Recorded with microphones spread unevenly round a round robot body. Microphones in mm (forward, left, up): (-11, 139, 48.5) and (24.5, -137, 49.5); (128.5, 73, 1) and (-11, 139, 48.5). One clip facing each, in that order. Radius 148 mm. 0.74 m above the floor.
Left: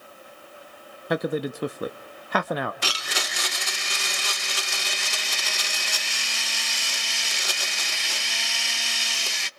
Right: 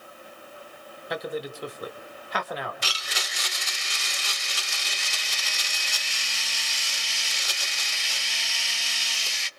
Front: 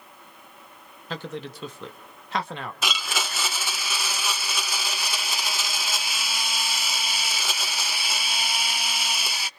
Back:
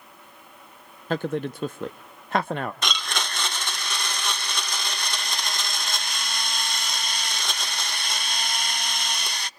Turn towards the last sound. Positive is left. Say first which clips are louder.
# left 5 dB, even
turn(degrees=60)